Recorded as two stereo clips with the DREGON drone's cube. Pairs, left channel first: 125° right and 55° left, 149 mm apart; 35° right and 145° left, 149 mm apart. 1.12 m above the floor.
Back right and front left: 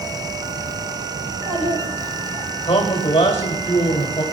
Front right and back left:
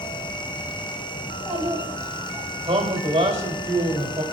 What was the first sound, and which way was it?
A child speaking, 75° left.